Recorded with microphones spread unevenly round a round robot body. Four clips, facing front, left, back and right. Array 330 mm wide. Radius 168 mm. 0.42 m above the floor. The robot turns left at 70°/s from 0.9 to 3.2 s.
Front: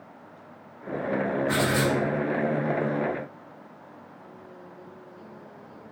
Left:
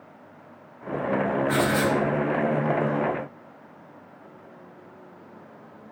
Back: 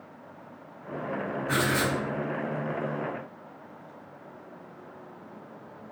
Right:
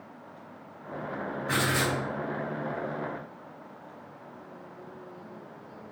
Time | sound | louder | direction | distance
1.5 | writing | left 2 dB, even | 45° right | 1.8 m